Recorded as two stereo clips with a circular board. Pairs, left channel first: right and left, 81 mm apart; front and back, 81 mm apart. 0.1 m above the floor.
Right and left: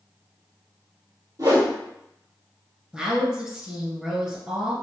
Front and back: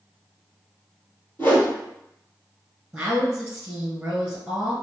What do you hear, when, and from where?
1.4 s a whoosh: 60° left, 1.9 m
2.9 s a woman speaking: 140° left, 1.6 m